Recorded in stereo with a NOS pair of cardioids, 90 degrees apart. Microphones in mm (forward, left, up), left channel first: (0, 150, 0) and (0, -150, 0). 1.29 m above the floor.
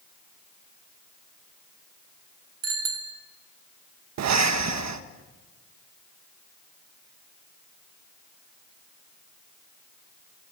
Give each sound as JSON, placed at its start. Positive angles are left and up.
{"t": 2.6, "sound": "a bicycle bell", "azimuth_deg": -55, "distance_m": 5.0}
{"t": 4.2, "sound": "breathing", "azimuth_deg": -65, "distance_m": 1.4}